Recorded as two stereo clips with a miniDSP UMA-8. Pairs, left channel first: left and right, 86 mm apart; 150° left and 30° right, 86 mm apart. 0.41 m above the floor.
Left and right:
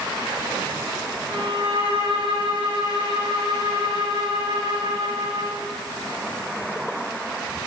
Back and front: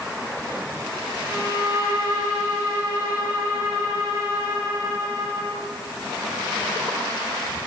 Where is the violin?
90° right, 5 m.